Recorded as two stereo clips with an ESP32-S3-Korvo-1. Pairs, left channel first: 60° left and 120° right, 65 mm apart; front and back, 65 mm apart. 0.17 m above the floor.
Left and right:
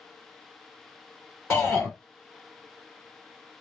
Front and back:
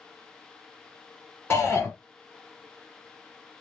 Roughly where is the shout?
Ahead left.